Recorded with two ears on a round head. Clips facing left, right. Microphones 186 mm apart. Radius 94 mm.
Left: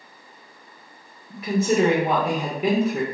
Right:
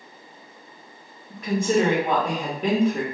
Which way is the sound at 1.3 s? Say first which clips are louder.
Left 1 dB; 5° left (ahead or behind).